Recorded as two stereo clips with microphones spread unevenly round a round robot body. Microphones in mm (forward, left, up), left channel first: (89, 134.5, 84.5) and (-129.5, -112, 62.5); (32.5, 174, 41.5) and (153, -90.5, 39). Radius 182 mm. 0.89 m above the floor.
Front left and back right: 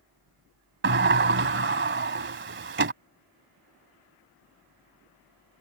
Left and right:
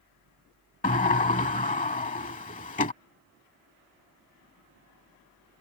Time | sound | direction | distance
0.8 | a sliding door | 175° left | ?